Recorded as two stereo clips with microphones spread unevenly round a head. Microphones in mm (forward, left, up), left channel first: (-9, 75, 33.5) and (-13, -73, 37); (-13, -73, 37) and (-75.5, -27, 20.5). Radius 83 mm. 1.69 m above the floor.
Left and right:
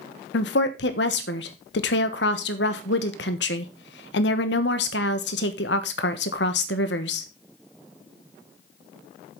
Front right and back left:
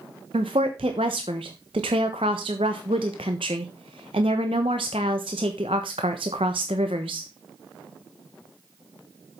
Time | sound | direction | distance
0.3 | a woman speaking | 85° left | 1.2 m